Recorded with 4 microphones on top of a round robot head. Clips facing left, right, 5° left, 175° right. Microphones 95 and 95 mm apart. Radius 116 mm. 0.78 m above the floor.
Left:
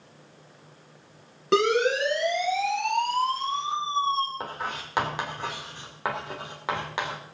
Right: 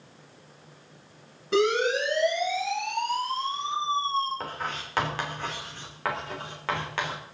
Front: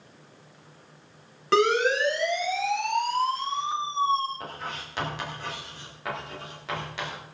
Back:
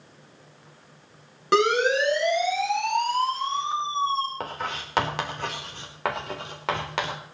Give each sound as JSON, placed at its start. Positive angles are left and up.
{"t": 1.5, "sound": "a siren", "azimuth_deg": 110, "distance_m": 8.5}
{"t": 4.4, "sound": "writing", "azimuth_deg": 165, "distance_m": 3.5}